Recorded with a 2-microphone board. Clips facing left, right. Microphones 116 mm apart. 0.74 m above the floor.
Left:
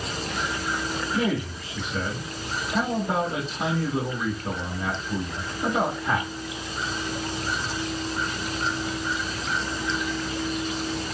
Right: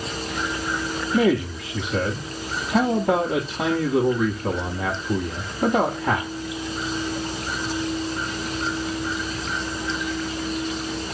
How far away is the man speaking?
About 1.1 m.